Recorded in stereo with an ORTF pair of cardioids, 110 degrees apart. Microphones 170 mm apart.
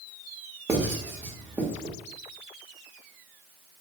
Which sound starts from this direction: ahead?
Writing, at 0.7 s.